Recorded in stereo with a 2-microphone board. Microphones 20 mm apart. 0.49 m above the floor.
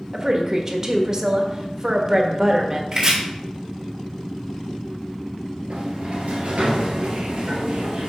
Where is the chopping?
35° right (ahead or behind), 2.0 m.